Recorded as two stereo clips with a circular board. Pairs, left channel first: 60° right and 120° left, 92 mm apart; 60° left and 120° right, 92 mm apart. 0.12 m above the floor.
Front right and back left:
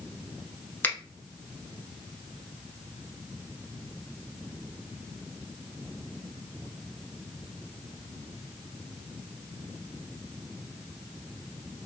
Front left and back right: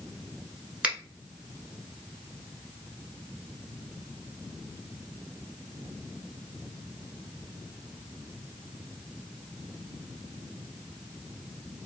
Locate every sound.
0.8 s a finger snap: 60° right, 1.0 m